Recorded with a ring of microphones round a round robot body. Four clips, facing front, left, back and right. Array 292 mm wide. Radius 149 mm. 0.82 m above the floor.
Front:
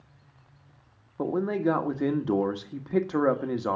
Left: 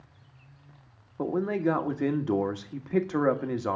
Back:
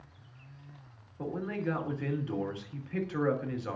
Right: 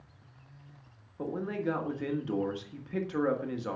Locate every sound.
1.2 s a man speaking: 35° left, 1.4 m